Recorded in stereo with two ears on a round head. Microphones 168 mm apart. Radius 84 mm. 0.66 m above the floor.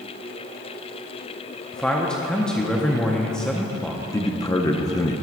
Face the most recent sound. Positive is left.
turn(degrees=20)  # may be behind; listen again after turning